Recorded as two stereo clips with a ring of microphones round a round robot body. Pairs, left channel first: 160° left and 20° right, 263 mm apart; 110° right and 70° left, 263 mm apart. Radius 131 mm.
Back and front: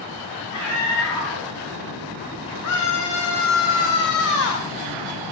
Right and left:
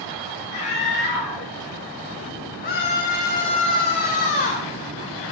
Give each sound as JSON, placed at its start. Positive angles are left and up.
{"t": 0.5, "sound": "a scream", "azimuth_deg": -165, "distance_m": 9.5}
{"t": 2.6, "sound": "a scream", "azimuth_deg": -170, "distance_m": 2.5}